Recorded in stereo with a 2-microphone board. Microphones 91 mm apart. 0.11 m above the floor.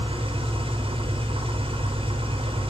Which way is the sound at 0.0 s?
85° right.